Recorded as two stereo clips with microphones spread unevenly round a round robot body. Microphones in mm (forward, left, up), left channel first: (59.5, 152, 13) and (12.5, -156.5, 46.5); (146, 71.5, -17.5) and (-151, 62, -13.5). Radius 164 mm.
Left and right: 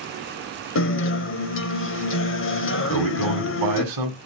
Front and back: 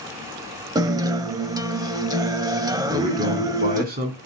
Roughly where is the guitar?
Left.